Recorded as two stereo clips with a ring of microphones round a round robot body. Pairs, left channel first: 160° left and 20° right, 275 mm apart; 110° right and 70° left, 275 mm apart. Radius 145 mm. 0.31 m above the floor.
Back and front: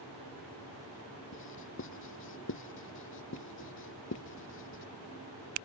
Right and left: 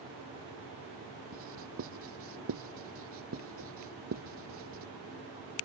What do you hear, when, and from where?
1.3 s writing: 110° left